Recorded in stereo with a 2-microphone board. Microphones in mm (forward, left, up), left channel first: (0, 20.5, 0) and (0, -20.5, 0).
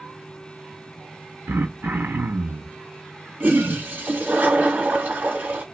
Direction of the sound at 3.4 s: 45° right (ahead or behind).